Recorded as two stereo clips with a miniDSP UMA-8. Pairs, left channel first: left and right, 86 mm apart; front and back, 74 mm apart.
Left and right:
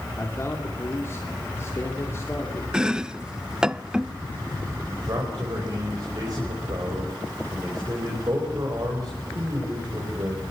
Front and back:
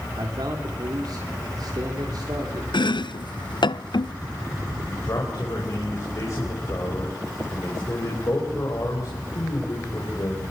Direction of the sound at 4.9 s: 45° right.